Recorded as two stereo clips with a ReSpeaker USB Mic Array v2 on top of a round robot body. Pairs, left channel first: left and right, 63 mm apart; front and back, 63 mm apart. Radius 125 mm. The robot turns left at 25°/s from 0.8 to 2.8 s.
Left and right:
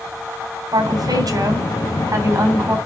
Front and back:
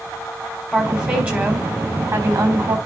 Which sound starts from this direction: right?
A woman speaking, at 0.7 s.